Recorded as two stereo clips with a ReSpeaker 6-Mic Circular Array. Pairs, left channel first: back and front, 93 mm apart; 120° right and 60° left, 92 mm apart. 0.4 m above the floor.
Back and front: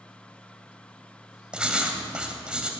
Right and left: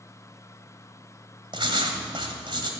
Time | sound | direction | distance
1.5 | writing | 80° left | 1.9 m